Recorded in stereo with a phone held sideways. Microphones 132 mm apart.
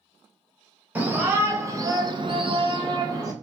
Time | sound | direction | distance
0.9 | a shout | 15° right (ahead or behind) | 1.6 m